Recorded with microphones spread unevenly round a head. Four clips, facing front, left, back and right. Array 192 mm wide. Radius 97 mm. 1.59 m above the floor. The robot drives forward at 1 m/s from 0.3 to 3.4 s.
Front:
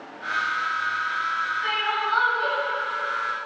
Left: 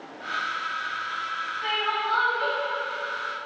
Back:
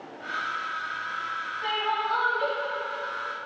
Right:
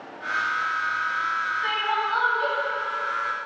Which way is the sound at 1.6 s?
165° left.